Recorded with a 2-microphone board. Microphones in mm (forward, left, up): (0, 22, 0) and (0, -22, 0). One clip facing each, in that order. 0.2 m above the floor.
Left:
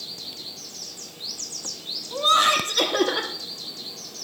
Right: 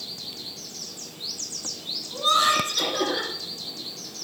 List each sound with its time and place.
2.1 s laughter: 25° left (ahead or behind), 1.5 m